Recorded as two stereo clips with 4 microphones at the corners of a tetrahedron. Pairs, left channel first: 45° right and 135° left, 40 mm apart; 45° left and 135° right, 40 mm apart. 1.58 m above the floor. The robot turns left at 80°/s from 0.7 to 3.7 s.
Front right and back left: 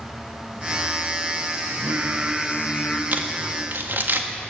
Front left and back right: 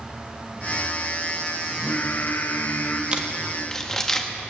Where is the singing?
110° left, 1.5 m; by 3.0 s 5° left, 1.5 m.